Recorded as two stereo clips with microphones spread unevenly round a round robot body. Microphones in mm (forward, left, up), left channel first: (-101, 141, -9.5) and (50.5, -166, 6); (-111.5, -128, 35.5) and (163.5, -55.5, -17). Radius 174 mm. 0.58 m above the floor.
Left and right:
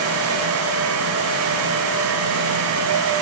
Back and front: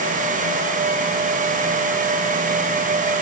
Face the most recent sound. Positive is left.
No sound to turn to.